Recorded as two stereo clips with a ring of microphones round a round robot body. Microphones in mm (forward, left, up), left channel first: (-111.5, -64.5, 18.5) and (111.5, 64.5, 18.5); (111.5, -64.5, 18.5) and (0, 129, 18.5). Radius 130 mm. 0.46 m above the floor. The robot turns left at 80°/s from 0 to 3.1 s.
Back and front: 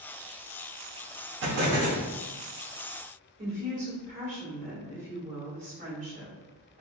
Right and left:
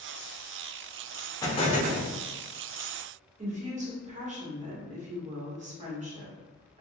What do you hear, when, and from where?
1.4 s an explosion: 10° left, 0.9 m; by 2.0 s 40° right, 0.9 m
3.4 s a woman speaking: 75° left, 1.5 m